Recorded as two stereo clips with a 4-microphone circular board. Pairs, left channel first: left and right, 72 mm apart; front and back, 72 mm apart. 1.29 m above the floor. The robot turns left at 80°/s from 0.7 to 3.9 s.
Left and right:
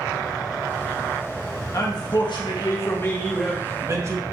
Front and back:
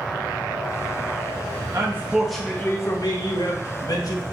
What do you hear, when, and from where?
1.7 s a man speaking: 135° left, 1.4 m; by 4.2 s 35° right, 1.4 m